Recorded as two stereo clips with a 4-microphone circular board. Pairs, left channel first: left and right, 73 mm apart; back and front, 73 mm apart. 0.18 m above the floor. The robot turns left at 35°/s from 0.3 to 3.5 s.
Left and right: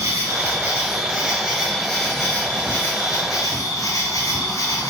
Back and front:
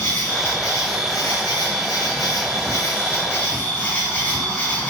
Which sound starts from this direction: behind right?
An insect, at 0.0 s.